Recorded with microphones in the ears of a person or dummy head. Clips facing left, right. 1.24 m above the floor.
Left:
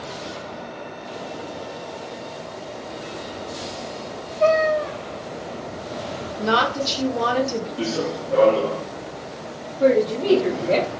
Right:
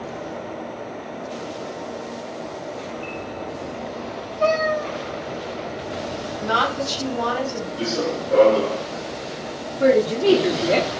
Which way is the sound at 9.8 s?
10° right (ahead or behind).